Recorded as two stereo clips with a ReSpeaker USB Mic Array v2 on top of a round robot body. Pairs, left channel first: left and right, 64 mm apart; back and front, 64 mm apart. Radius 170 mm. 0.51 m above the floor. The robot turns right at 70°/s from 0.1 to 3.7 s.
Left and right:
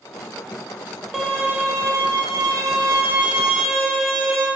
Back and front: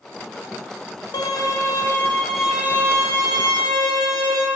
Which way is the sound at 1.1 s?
175° right.